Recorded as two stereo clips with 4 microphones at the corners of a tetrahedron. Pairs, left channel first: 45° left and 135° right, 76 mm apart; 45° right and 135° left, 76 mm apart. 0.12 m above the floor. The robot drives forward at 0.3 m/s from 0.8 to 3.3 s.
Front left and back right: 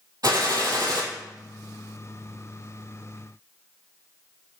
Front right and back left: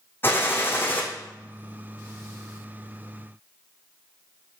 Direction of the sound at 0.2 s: 100° right.